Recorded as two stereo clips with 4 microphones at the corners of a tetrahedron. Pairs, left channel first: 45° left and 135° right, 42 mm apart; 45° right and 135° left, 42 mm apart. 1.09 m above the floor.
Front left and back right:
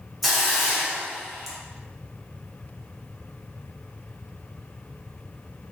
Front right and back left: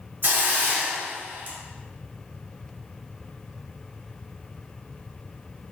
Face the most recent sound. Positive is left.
turn(degrees=140)